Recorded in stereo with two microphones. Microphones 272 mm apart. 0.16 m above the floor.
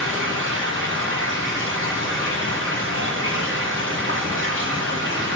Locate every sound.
0.0 s running water: 45° right (ahead or behind), 9 m